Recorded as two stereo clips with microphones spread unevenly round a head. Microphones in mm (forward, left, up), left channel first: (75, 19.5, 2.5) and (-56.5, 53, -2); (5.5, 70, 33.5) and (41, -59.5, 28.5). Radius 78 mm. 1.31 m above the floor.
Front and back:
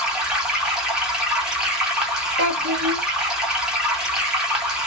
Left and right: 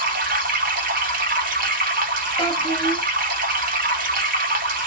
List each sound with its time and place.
0.0 s running water: 110° right, 0.8 m
2.4 s a child speaking: 175° left, 1.7 m